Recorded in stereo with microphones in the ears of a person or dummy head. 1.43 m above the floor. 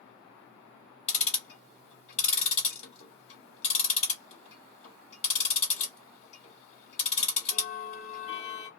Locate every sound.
1.1 s ticking: 40° left (ahead or behind), 1.6 m